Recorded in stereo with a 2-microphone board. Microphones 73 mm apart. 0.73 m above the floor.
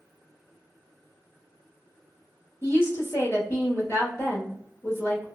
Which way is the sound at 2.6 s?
35° left (ahead or behind).